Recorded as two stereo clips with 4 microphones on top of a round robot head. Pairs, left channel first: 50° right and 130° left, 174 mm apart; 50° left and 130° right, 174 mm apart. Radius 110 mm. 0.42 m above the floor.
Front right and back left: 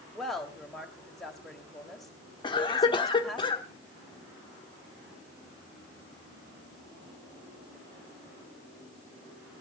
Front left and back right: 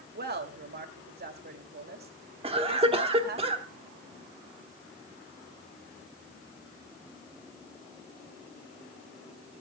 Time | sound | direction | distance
0.1 | a woman speaking | 140° right | 2.5 m
2.4 | a cough | 100° right | 1.2 m